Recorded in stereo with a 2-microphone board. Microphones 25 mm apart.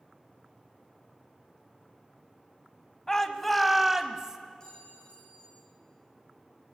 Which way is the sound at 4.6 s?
25° left (ahead or behind).